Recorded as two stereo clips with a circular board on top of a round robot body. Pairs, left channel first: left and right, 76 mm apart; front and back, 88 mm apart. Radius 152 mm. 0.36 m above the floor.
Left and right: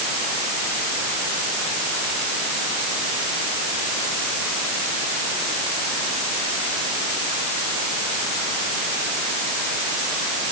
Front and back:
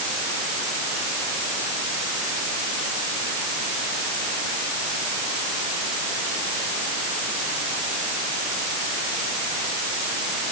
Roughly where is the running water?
No running water in this recording.